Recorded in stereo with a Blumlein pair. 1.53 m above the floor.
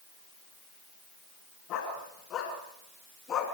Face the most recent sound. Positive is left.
turn(degrees=25)